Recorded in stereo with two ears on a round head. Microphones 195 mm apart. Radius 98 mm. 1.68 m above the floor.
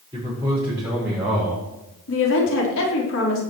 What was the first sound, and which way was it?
A man speaking, 15° right (ahead or behind).